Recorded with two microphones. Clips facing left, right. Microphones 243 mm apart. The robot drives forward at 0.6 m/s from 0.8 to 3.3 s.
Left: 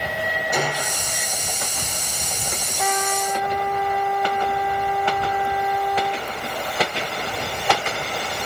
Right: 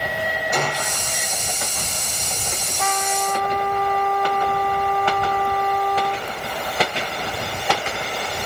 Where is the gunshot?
5° left (ahead or behind), 1.8 m.